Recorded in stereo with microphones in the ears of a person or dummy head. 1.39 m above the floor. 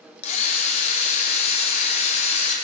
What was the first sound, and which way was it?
A drill, 40° left (ahead or behind).